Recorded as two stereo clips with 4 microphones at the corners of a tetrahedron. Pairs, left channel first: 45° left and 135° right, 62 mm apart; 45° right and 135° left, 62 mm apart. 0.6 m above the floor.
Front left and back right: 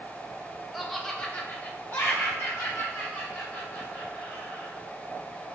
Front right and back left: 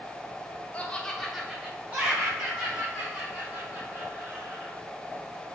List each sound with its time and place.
0.7 s laughter: 45° right, 0.6 m; by 4.7 s 95° left, 2 m